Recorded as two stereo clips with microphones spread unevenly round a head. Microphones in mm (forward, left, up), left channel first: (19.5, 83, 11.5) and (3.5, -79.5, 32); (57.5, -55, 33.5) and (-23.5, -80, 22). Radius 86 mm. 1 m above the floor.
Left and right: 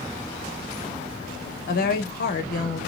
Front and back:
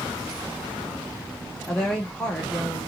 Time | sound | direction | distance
1.7 | a woman speaking | 105° left | 0.7 m